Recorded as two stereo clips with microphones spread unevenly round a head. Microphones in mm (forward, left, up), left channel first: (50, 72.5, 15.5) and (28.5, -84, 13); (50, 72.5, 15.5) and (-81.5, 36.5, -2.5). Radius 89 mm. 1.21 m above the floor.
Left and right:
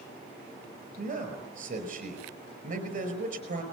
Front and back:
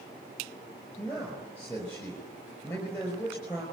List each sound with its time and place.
1.0 s a man speaking: 55° right, 5 m